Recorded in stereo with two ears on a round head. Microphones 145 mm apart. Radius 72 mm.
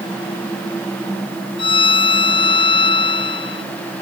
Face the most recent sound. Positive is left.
turn(degrees=30)  # may be behind; listen again after turning